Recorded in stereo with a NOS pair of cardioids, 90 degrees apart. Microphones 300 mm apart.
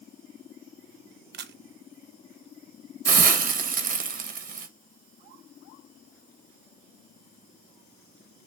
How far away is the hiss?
About 0.8 m.